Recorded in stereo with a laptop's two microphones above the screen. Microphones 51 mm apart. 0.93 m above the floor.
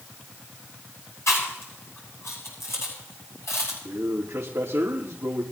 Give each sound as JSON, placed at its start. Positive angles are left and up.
{"t": 1.3, "sound": "chewing", "side_deg": 85, "distance_m": 7.5}
{"t": 3.9, "sound": "a man speaking", "side_deg": -65, "distance_m": 1.8}